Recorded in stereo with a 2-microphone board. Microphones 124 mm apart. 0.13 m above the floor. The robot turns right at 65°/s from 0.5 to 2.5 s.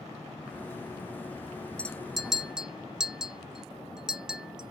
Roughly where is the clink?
Centre.